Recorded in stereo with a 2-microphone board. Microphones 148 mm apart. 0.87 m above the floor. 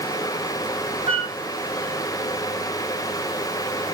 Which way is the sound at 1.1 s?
45° right (ahead or behind).